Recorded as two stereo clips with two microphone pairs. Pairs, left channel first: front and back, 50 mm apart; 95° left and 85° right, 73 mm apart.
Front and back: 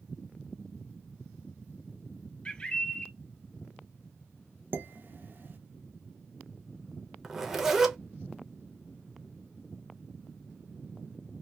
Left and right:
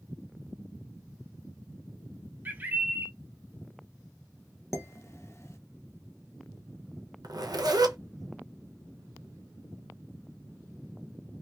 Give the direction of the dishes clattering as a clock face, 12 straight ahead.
7 o'clock.